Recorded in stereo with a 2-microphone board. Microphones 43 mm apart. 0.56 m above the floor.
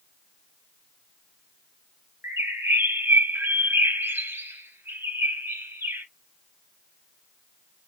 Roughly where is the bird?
Right.